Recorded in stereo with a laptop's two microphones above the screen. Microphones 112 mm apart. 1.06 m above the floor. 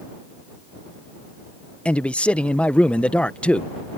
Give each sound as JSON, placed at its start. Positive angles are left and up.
{"t": 1.9, "sound": "a man speaking", "side_deg": 10}